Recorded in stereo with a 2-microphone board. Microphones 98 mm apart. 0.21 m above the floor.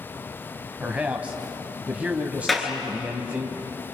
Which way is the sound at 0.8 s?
15° right (ahead or behind).